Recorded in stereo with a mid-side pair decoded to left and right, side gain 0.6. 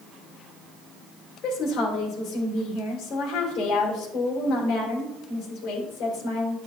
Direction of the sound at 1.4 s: 60° left.